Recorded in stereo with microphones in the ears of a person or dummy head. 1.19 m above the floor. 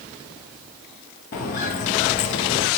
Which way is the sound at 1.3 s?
50° left (ahead or behind).